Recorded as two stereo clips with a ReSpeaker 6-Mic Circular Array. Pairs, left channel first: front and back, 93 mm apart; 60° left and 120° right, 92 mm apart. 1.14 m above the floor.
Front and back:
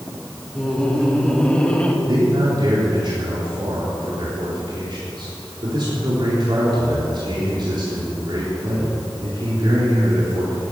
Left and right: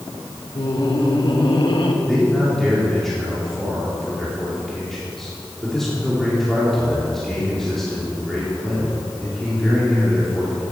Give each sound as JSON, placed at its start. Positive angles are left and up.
{"t": 0.6, "sound": "laughter", "azimuth_deg": 85, "distance_m": 3.0}
{"t": 2.0, "sound": "a man speaking", "azimuth_deg": 145, "distance_m": 3.5}